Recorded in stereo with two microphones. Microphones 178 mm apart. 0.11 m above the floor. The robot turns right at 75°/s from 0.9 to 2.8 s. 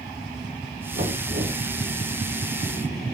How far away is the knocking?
About 6.5 m.